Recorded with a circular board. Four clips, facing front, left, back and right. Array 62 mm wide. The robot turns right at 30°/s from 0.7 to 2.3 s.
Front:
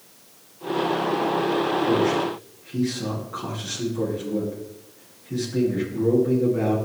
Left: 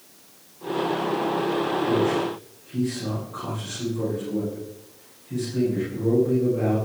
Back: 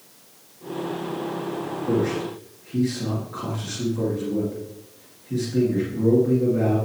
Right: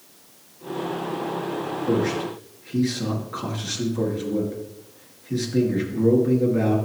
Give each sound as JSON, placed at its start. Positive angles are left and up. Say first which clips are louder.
{"t": 1.9, "sound": "a man speaking", "louder": "right 3 dB, front 3 dB", "azimuth_deg": -95, "distance_m": 3.5}